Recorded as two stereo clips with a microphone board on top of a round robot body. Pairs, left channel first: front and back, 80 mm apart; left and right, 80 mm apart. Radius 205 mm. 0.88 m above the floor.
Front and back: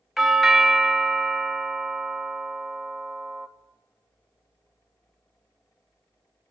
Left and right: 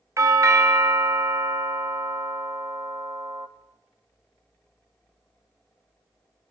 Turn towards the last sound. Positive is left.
turn(degrees=-95)